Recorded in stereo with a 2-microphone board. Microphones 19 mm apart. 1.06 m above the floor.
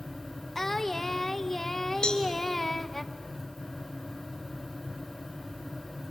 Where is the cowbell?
60° left (ahead or behind), 2 m.